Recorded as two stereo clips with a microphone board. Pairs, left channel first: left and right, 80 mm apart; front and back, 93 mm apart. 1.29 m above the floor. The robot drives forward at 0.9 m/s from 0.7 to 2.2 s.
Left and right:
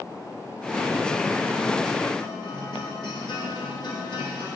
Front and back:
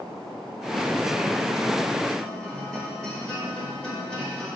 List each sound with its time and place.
2.2 s a guitar: 80° left, 3 m